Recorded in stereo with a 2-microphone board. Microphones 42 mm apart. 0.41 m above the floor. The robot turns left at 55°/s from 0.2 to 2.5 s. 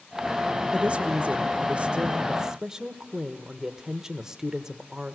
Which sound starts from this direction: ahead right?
A woman speaking, at 0.7 s.